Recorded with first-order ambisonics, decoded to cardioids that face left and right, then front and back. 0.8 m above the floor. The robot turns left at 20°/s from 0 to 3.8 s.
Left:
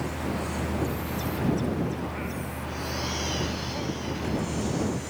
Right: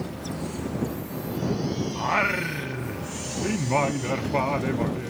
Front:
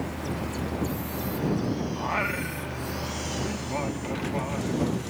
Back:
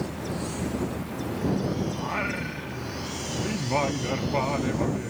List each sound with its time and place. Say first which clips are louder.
1.9 s singing: right 11 dB, front 2 dB; 75° right; by 5.1 s 110° right